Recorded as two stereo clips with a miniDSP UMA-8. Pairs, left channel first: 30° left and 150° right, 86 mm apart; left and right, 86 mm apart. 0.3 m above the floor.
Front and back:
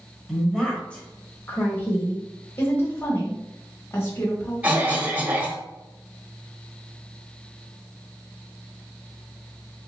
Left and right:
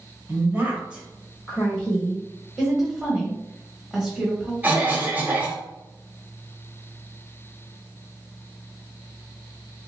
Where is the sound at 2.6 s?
10° right, 1.1 m.